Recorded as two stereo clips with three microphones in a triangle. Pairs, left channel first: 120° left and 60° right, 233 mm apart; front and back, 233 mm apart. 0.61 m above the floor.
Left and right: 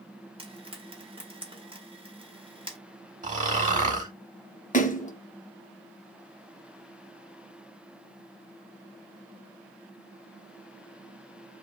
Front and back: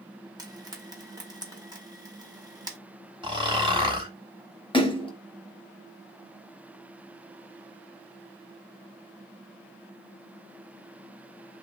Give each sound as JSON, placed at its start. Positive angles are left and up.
{"t": 0.4, "sound": "frying", "azimuth_deg": -115, "distance_m": 1.0}
{"t": 3.2, "sound": "snoring", "azimuth_deg": -110, "distance_m": 1.0}
{"t": 4.7, "sound": "a splash", "azimuth_deg": 65, "distance_m": 0.6}